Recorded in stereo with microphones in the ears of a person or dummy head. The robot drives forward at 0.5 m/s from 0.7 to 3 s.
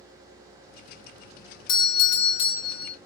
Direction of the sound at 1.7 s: 20° left (ahead or behind).